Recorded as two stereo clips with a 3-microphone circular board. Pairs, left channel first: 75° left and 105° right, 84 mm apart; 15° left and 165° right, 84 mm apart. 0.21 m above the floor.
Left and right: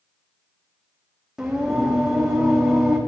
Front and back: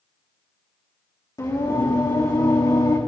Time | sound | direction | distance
1.4 | singing | 25° right | 4 m